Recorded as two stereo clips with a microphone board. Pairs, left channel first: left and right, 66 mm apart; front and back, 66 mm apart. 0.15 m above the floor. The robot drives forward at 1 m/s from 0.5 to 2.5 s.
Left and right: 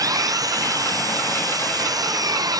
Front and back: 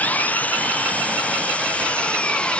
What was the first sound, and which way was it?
An engine running, 65° right.